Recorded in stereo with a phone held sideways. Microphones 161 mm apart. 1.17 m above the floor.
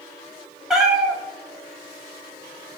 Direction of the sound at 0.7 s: 5° right (ahead or behind).